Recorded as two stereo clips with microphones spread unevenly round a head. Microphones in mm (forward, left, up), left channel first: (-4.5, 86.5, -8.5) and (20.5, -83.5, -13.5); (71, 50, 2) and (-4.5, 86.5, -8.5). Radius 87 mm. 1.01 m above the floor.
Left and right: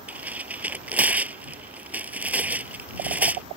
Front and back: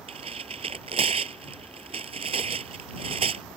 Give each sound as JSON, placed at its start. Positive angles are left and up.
{"t": 0.1, "sound": "tearing paper", "azimuth_deg": -165}